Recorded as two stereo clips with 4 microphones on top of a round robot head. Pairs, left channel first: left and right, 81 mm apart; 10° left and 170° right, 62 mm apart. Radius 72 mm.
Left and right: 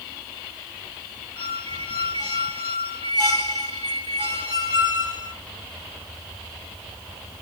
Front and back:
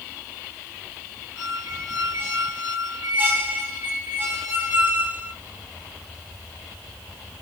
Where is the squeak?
135° left, 1.3 m.